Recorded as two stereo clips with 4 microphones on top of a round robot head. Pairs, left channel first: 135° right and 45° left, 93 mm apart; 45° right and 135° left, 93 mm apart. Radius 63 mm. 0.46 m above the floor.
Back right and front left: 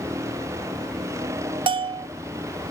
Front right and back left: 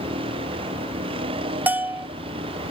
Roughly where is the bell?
Ahead left.